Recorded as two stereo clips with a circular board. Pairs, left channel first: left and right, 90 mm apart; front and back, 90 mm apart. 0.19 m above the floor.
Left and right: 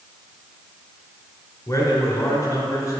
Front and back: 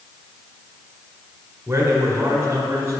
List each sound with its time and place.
1.7 s a man speaking: 125° left, 1.6 m